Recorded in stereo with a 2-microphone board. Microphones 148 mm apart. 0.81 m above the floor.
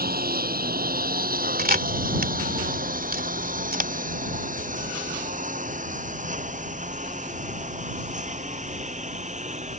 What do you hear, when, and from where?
0.0 s a lawn mower: 80° right; by 9.8 s 50° right (ahead or behind)
1.6 s a camera shutter: 75° right (ahead or behind)